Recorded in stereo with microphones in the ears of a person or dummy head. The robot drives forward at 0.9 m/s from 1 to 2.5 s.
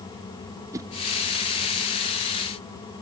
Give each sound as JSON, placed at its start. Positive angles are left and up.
{"t": 0.7, "sound": "a whoosh", "side_deg": -20, "distance_m": 0.5}